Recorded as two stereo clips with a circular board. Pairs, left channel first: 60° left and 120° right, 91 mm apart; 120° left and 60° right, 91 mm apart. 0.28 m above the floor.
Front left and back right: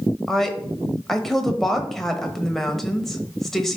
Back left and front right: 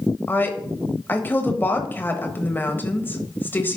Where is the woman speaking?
145° left, 1.1 m.